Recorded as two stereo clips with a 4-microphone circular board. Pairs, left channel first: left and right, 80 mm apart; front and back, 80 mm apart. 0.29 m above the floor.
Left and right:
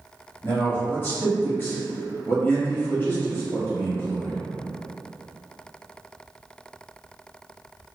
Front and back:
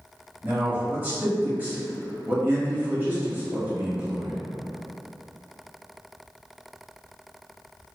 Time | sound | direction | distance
0.4 | a man speaking | 130° left | 1.1 m